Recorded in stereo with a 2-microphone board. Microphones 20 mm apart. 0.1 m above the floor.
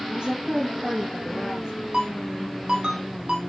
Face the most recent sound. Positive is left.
turn(degrees=-50)  # may be behind; listen again after turning